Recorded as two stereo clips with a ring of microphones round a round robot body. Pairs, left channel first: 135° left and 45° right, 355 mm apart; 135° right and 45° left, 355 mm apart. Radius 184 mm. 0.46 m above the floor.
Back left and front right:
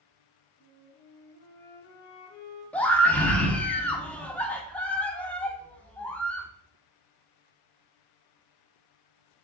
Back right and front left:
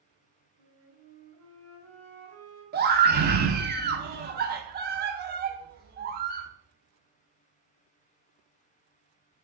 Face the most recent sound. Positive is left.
turn(degrees=55)